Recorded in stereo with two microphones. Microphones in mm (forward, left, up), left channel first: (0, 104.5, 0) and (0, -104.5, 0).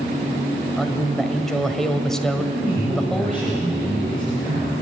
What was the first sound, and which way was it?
A man speaking, 5° left (ahead or behind).